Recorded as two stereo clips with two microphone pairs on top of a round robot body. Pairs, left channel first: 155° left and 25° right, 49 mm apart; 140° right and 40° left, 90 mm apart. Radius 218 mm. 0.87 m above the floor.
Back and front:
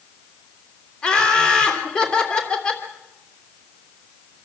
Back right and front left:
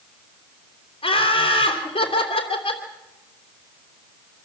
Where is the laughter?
135° right, 3.5 m.